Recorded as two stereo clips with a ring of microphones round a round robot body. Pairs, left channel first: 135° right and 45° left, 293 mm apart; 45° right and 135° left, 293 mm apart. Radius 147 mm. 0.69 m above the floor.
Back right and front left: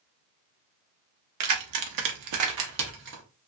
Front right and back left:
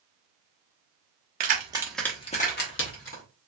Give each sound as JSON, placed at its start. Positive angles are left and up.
{"t": 1.4, "sound": "keys jangling", "azimuth_deg": 75, "distance_m": 0.8}